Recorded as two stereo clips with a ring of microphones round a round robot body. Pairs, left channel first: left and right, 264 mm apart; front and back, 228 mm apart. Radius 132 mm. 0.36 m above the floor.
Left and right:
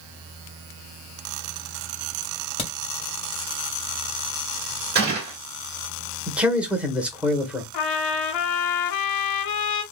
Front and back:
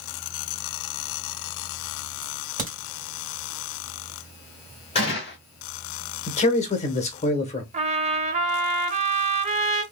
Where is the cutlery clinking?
I don't hear cutlery clinking.